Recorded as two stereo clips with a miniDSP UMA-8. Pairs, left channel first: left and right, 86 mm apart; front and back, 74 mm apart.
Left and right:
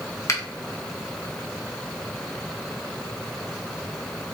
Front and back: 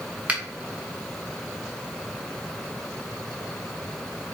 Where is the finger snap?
120° left, 0.9 m.